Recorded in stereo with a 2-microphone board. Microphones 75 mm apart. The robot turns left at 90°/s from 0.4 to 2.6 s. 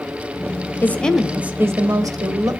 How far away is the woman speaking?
About 1.2 m.